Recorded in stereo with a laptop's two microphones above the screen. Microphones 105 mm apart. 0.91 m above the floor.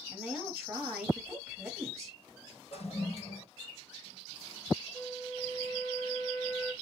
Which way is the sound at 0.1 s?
10° right (ahead or behind).